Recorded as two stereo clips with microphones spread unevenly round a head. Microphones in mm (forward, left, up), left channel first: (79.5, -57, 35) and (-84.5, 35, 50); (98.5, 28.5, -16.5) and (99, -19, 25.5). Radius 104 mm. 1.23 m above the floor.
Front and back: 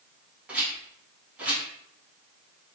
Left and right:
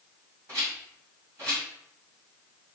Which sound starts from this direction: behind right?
A rattle, at 0.5 s.